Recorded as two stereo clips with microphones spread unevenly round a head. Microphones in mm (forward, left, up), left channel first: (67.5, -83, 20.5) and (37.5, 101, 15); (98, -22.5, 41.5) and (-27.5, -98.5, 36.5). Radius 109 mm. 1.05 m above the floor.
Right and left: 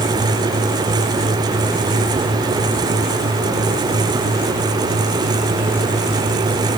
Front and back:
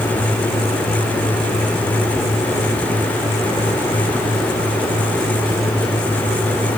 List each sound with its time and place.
Only background noise.